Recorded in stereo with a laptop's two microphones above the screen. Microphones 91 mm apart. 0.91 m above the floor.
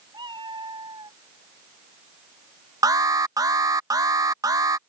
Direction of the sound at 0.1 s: 50° right (ahead or behind).